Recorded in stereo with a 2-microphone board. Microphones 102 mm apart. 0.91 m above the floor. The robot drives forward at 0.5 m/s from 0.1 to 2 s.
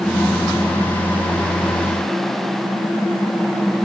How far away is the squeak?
I don't hear a squeak.